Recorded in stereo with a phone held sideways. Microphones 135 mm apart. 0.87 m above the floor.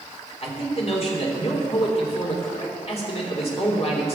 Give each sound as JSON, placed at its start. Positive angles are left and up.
{"t": 0.4, "sound": "a man speaking", "side_deg": 50, "distance_m": 3.0}